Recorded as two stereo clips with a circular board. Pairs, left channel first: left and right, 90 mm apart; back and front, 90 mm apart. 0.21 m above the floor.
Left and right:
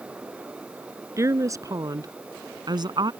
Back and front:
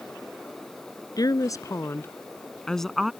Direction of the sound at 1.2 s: 145° right.